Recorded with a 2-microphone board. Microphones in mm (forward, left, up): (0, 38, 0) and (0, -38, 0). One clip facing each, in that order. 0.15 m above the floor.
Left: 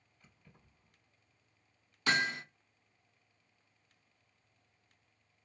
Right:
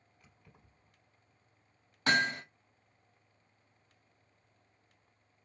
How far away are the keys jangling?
About 3 m.